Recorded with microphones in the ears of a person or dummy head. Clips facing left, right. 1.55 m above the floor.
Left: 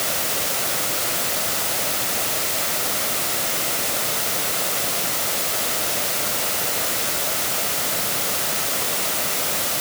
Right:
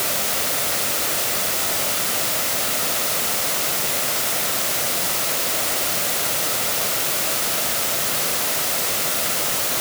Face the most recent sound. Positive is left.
No sound to turn to.